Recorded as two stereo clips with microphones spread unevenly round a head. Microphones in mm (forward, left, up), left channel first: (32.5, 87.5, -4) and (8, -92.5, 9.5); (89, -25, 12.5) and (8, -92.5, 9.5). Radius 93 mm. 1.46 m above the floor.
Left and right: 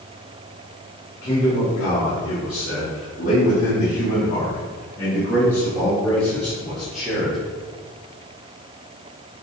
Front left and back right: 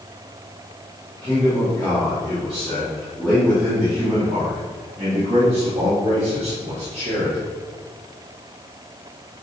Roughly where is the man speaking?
Left.